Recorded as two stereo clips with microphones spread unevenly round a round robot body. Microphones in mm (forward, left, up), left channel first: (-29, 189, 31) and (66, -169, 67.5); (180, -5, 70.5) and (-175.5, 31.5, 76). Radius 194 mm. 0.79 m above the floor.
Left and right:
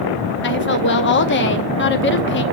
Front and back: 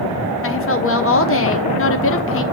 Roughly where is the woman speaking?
Ahead left.